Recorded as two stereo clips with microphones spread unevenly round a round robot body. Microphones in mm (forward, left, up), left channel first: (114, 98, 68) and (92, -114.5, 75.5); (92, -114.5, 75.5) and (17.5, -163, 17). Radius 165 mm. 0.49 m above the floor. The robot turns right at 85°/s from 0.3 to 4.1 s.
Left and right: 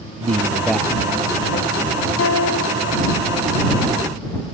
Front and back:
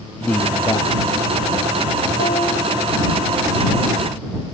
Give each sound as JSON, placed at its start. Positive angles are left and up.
{"t": 0.2, "sound": "a man speaking", "azimuth_deg": -40}
{"t": 2.2, "sound": "a guitar", "azimuth_deg": 80}